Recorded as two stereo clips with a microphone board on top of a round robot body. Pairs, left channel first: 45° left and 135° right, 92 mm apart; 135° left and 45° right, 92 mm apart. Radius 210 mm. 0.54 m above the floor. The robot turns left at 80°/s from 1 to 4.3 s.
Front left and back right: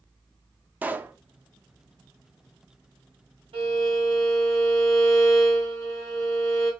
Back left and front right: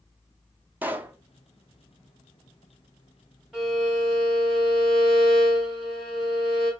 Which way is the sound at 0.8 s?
90° right.